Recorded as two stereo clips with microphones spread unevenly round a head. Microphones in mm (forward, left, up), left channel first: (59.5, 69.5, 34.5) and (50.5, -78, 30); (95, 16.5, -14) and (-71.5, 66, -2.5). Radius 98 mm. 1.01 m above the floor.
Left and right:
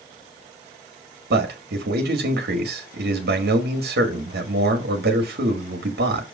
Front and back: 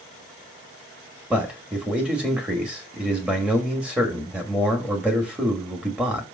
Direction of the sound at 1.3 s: 110° right.